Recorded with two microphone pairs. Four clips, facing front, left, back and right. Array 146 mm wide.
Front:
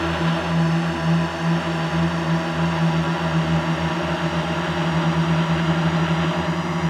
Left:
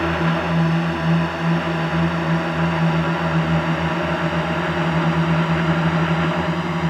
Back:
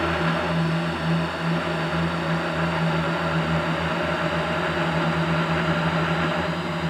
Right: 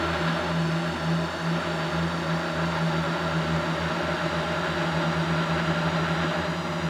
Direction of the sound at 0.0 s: 55° left.